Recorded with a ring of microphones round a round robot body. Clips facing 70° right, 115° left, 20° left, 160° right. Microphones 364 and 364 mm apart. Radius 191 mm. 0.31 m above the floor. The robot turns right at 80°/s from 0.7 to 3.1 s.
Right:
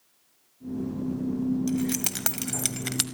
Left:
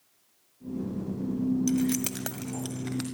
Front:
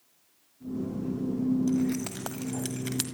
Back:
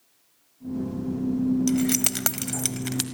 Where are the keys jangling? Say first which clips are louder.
Left 1 dB, back 3 dB; 175° right, 1.6 m; by 3.0 s 65° right, 1.6 m.